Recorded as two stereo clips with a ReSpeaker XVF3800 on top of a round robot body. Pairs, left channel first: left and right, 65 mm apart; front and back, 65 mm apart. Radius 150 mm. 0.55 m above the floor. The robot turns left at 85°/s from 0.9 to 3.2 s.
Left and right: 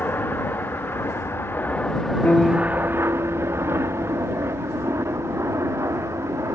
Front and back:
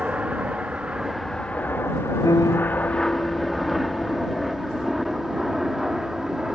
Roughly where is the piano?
Ahead left.